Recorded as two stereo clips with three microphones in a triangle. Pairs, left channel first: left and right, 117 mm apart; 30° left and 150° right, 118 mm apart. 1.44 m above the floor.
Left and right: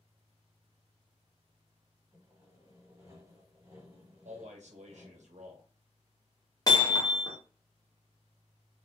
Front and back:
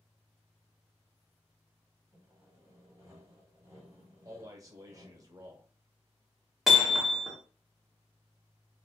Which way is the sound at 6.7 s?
125° left.